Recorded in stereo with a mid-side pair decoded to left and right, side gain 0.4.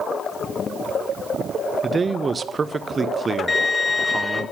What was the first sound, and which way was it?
A man speaking, 40° right.